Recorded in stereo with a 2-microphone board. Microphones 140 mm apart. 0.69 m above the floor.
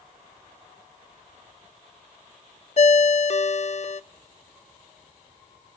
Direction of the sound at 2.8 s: 50° left (ahead or behind).